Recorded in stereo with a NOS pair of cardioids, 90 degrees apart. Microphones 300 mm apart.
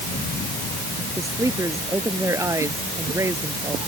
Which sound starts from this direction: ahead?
A woman speaking, at 1.2 s.